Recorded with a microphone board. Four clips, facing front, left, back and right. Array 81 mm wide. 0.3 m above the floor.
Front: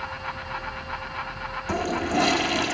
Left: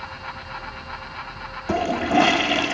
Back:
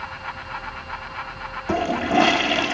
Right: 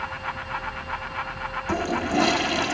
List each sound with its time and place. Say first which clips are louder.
1.7 s a toilet flushing: left 5 dB, back 5 dB; 130° left, 0.9 m